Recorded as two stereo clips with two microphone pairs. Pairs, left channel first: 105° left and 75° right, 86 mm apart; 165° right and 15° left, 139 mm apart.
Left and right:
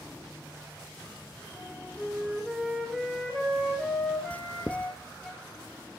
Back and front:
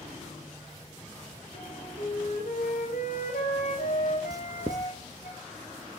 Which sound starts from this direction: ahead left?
Writing, at 4.3 s.